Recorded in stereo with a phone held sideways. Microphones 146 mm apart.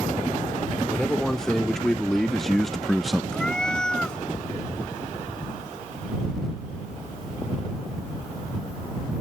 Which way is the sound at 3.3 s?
5° left (ahead or behind).